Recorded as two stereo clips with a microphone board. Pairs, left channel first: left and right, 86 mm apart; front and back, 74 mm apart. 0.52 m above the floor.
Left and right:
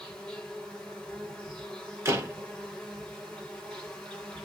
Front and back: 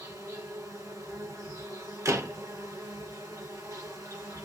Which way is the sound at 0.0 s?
170° left.